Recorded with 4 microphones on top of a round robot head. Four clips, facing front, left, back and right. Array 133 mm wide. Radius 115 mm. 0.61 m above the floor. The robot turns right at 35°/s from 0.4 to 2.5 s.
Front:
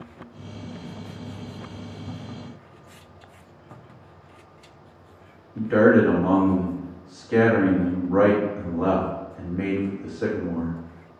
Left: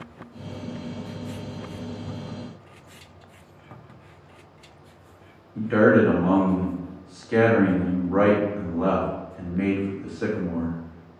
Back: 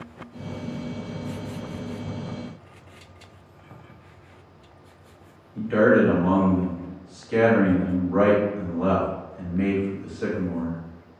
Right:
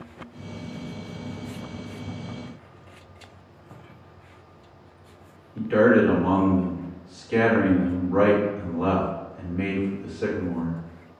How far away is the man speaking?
About 1.4 m.